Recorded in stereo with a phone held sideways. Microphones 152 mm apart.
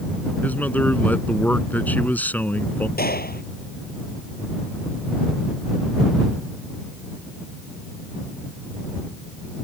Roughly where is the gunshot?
Left.